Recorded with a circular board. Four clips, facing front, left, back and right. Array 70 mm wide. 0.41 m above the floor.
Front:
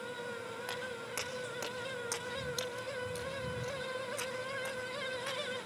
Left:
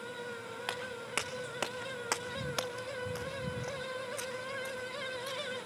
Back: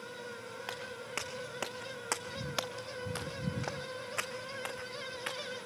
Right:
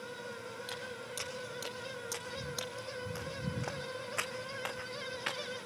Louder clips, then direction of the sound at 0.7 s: Left 4 dB, back 1 dB; 100° left.